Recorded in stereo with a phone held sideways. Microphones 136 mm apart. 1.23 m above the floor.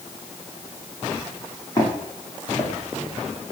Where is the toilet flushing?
No toilet flushing in this recording.